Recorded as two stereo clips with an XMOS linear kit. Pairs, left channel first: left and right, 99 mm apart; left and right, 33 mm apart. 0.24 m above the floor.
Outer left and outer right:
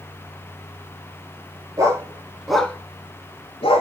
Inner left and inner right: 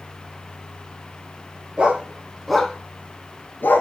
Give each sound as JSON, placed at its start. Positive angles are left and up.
{"t": 1.8, "sound": "a dog barking", "side_deg": -35, "distance_m": 1.4}